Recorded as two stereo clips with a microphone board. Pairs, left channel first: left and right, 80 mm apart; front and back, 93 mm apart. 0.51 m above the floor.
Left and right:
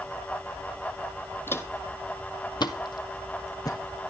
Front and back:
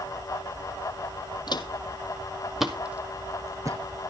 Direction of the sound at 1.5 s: 30° left.